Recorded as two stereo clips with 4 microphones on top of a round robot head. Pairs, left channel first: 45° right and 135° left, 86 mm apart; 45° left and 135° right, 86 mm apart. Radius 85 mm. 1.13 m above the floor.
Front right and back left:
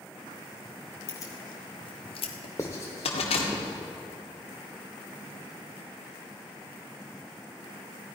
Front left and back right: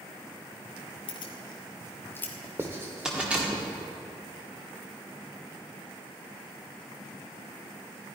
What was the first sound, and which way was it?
Keys jangling, 15° left.